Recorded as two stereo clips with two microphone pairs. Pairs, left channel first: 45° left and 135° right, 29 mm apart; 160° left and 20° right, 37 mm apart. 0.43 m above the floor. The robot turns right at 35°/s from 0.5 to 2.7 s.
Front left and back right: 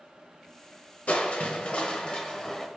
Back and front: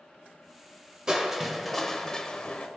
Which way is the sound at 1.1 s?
55° left.